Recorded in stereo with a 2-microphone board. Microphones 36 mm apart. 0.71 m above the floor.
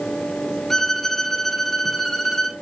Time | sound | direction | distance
0.7 | a violin | 5° left (ahead or behind) | 0.8 m